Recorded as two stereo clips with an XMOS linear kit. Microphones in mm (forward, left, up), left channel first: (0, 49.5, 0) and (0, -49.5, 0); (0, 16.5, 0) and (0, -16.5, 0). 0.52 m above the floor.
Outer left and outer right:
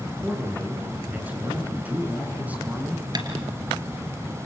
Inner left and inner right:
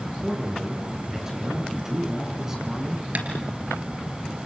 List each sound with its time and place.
0.2 s a man speaking: 15° right (ahead or behind), 7.5 m
3.1 s tapping: 45° right (ahead or behind), 3 m